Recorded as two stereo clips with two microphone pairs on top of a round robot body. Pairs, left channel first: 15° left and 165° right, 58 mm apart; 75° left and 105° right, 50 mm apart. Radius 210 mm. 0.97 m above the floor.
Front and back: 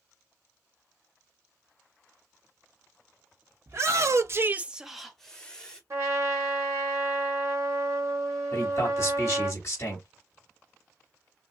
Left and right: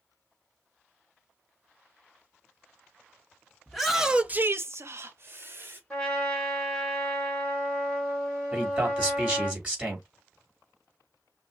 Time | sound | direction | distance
3.7 | a shout | 160° left | 1.4 m
5.9 | a trumpet | 150° left | 1.8 m
8.5 | a man speaking | 40° right | 3 m